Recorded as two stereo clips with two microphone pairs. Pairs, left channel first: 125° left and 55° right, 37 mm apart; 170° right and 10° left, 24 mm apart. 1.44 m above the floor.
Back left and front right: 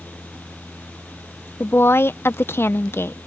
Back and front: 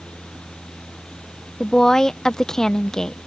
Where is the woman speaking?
120° left.